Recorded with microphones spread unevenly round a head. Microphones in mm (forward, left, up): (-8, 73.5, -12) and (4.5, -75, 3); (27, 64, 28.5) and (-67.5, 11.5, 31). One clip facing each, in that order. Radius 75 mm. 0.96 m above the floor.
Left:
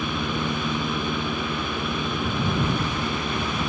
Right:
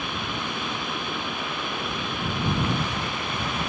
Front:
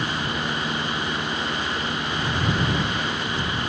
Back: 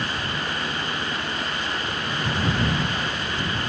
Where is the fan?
100° left.